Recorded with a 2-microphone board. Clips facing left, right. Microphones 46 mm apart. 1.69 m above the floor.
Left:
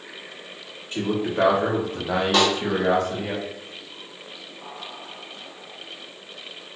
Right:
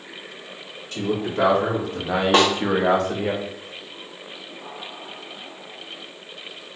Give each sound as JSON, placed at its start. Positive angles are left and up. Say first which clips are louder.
{"t": 0.9, "sound": "a man speaking", "louder": "even", "side_deg": 25, "distance_m": 1.3}
{"t": 2.3, "sound": "a snare drum", "louder": "right 3 dB", "side_deg": -40, "distance_m": 0.6}